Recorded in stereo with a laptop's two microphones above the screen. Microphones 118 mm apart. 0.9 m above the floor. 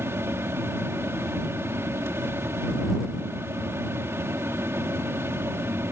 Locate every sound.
0.0 s a fan: 20° right (ahead or behind)